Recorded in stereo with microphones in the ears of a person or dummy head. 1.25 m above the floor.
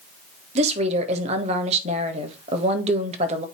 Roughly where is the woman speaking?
Right.